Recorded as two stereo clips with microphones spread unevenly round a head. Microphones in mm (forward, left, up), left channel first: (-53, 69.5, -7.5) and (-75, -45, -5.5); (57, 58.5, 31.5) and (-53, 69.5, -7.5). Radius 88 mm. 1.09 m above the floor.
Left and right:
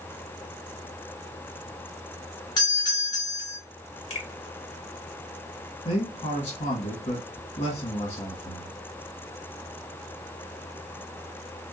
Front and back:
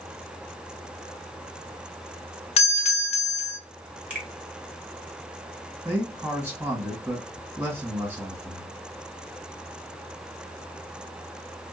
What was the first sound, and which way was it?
A doorbell, 30° left.